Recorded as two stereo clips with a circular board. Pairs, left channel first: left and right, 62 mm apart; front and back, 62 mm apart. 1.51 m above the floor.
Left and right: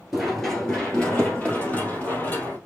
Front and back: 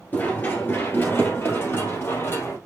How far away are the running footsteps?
About 1.6 m.